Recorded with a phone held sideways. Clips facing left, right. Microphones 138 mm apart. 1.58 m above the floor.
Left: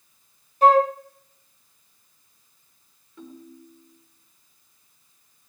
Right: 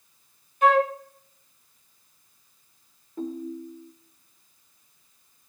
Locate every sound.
0.6 s a flute: 35° left (ahead or behind), 1.9 m
3.2 s a ringtone: 45° right (ahead or behind), 3.5 m